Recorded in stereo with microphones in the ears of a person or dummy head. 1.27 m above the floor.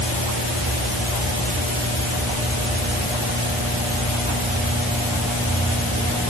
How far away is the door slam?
No door slam in this recording.